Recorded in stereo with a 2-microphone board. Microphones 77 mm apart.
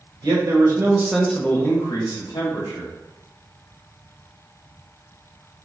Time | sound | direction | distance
0.2 | a man speaking | 55° right (ahead or behind) | 1.0 m